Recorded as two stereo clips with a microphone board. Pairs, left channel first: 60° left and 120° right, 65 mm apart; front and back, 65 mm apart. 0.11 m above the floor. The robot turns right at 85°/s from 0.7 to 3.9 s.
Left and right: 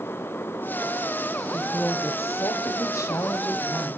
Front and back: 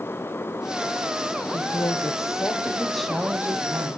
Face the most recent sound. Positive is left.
turn(degrees=165)